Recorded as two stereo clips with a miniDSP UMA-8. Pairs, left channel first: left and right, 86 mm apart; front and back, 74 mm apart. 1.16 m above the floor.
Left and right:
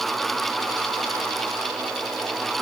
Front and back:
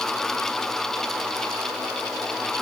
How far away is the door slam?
I don't hear a door slam.